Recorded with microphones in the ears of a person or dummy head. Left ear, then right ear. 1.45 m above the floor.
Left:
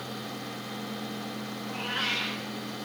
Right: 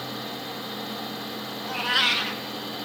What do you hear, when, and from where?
1.6 s a cat meowing: 50° right (ahead or behind), 1.2 m